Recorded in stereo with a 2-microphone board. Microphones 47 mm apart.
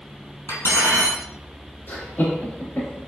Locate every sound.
0.5 s cutlery clinking: 70° left (ahead or behind), 2.5 m
1.9 s laughter: 45° left (ahead or behind), 2.5 m